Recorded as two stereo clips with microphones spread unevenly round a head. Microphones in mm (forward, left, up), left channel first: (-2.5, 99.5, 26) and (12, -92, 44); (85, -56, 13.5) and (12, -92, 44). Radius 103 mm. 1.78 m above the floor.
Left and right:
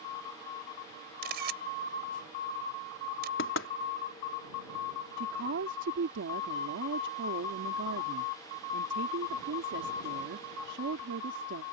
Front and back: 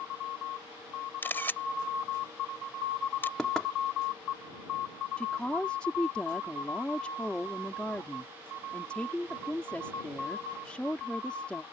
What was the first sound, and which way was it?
A camera shutter, 45° right.